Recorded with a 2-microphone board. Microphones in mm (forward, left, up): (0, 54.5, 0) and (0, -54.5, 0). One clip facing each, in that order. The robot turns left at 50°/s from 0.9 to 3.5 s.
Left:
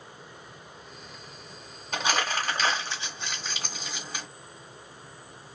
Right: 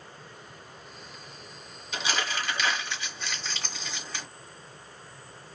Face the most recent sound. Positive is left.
turn(degrees=10)  # may be behind; listen again after turning